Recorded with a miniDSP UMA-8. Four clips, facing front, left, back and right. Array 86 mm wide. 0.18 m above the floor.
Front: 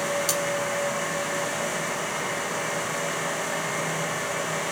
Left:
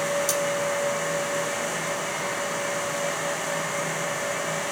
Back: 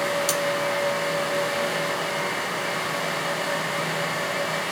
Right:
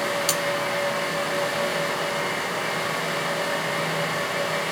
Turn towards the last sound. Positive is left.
turn(degrees=-90)